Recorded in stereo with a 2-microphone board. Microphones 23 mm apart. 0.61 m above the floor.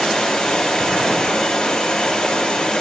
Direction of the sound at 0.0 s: 30° left (ahead or behind).